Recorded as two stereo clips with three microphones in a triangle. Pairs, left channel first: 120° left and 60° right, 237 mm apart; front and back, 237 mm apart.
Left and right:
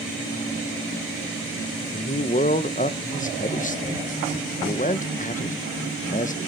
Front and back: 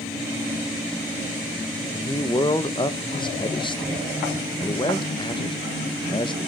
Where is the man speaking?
65° left, 0.7 m.